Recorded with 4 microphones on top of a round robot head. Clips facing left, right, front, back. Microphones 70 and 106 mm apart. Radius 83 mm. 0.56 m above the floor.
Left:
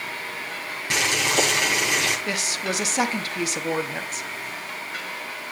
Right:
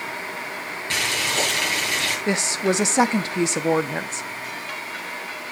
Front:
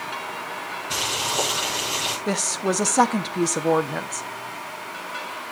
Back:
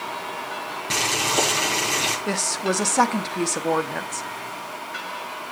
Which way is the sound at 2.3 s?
75° right.